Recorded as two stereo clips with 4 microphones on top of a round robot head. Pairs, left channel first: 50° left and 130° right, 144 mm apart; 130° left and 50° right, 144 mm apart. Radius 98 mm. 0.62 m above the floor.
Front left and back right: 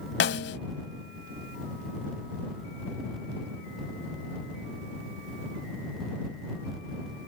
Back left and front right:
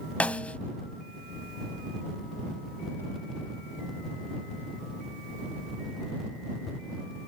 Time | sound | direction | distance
0.2 | a snare drum | 50° left | ?